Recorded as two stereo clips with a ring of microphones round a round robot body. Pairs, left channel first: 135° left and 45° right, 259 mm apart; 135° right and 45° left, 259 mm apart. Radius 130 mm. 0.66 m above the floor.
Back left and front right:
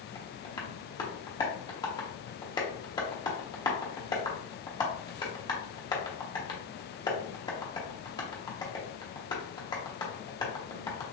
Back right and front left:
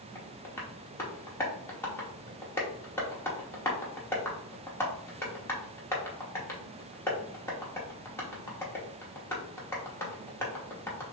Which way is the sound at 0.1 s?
165° left.